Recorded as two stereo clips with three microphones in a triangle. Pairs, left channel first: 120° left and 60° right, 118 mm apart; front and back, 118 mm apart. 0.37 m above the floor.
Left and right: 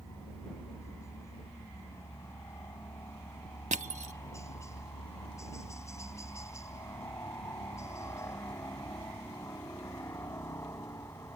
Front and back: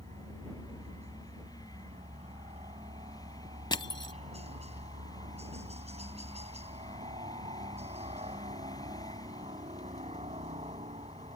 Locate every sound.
0.0 s a helicopter: straight behind
3.7 s crushing: 50° right